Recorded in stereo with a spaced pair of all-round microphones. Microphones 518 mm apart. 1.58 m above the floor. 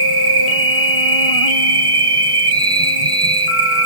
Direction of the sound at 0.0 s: 80° right.